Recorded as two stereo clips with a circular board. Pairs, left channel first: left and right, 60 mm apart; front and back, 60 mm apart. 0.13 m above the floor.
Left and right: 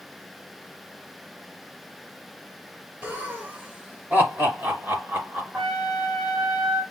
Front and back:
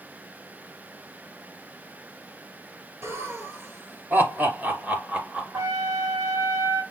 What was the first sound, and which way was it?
Laughter, 150° right.